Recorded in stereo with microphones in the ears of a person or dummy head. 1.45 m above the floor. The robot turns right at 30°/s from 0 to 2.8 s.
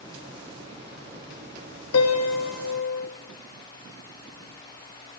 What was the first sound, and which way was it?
A piano, 80° left.